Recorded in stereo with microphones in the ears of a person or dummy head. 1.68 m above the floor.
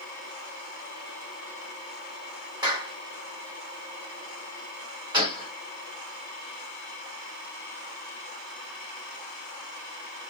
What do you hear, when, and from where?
2.6 s a clap: 25° right (ahead or behind), 1.2 m
5.1 s a gunshot: 30° right (ahead or behind), 1.2 m